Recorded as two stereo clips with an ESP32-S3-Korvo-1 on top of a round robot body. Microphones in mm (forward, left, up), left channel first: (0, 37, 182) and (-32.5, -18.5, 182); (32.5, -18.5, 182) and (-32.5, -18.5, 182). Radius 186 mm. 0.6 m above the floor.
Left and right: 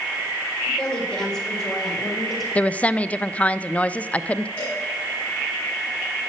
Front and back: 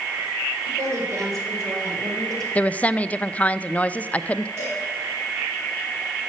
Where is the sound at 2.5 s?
30° left, 0.7 m.